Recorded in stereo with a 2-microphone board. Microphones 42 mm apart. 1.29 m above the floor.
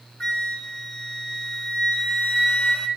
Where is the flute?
30° left (ahead or behind), 2.5 m.